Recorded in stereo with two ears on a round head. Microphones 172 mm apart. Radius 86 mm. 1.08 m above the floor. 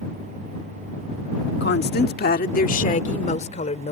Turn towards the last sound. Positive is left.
turn(degrees=35)  # may be behind; listen again after turning